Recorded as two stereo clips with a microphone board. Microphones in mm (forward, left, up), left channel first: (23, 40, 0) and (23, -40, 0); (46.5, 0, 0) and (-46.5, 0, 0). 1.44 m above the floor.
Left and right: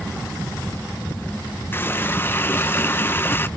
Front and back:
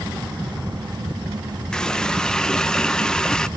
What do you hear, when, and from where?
1.7 s a running tap: 75° left, 0.5 m